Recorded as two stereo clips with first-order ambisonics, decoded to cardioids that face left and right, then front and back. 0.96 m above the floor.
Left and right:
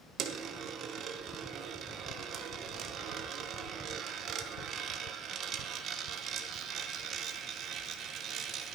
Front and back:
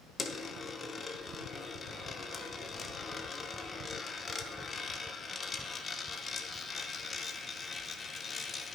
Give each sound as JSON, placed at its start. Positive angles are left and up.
{"t": 0.2, "sound": "a dropped coin", "azimuth_deg": -60, "distance_m": 0.6}